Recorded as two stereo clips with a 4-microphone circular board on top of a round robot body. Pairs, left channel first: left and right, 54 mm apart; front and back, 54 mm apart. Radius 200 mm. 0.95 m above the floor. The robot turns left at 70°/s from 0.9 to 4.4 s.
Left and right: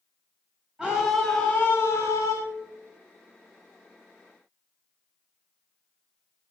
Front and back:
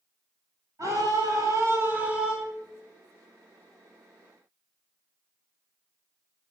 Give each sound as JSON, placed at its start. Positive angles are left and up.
{"t": 0.8, "sound": "a scream", "azimuth_deg": -165, "distance_m": 7.5}